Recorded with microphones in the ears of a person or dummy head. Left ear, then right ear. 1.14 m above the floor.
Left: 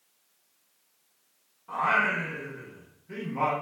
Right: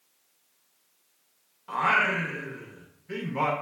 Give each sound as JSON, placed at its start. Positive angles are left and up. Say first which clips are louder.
{"t": 1.7, "sound": "singing", "louder": "right 1 dB", "side_deg": -30, "distance_m": 0.6}